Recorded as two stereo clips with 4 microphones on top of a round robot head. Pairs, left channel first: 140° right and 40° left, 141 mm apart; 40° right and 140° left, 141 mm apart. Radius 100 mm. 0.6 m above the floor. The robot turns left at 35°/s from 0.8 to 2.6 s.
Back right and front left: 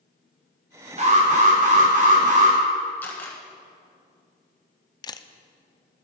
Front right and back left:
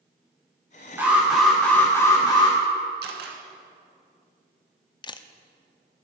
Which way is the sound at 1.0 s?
65° left.